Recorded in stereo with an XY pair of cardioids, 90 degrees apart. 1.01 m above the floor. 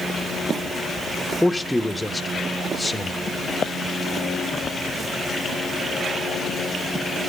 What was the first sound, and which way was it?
A man speaking, 10° left.